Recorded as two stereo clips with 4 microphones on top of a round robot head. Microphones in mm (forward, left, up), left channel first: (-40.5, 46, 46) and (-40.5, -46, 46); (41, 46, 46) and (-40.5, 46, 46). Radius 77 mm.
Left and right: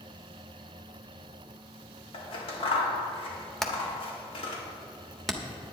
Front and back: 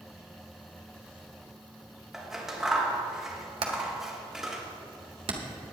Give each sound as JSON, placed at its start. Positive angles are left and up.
{"t": 2.1, "sound": "scissors", "azimuth_deg": 95, "distance_m": 2.0}
{"t": 3.6, "sound": "hammering", "azimuth_deg": 175, "distance_m": 1.4}